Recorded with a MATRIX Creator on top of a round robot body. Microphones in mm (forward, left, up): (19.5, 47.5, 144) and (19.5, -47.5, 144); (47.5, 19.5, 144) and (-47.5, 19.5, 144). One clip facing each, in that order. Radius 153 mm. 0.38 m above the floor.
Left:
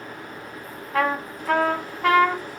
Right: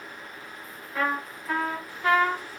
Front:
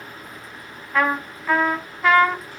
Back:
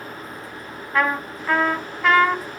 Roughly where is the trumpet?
Left.